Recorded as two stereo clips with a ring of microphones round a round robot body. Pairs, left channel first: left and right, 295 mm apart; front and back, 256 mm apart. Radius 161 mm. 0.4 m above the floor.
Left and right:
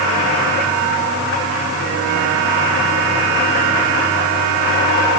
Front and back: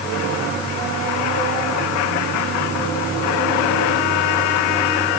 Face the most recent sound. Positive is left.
No sound to turn to.